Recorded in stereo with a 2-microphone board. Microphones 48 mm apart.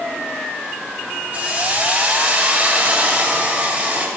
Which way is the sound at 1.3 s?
30° right (ahead or behind).